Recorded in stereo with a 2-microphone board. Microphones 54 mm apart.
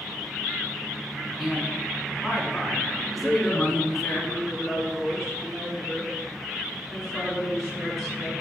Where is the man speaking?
Centre (ahead or behind), 3 m.